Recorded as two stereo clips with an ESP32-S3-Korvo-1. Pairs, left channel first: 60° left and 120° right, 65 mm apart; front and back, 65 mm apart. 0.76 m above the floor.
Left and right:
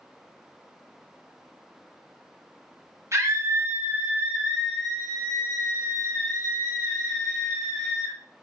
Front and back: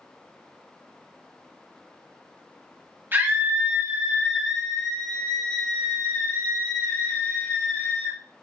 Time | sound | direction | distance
3.1 | a scream | 135° right | 1.2 m